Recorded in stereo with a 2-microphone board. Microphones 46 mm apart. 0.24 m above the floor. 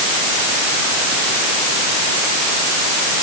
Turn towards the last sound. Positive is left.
No sound to turn to.